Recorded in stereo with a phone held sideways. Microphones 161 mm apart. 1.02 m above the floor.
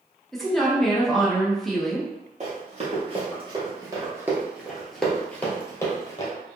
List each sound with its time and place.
0.3 s a woman speaking: centre (ahead or behind), 0.7 m
2.4 s running footsteps: 45° right (ahead or behind), 1.4 m; by 6.3 s 25° left (ahead or behind), 1.4 m